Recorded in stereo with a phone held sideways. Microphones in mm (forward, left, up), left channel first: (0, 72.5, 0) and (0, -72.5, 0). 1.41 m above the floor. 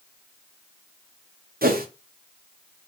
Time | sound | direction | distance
1.6 | a whoosh | 75° right (ahead or behind) | 0.5 m